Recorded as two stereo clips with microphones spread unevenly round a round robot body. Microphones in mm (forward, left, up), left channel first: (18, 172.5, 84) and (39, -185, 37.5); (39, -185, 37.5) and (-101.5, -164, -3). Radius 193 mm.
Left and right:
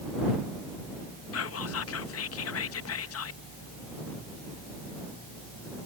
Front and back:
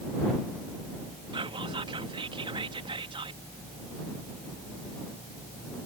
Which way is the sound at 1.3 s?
140° left.